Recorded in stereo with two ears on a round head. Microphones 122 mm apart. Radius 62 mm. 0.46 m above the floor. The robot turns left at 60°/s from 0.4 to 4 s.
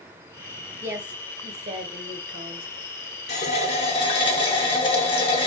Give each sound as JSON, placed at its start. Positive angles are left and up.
{"t": 0.8, "sound": "a woman speaking", "azimuth_deg": -20, "distance_m": 1.3}
{"t": 3.3, "sound": "a running tap", "azimuth_deg": 95, "distance_m": 0.9}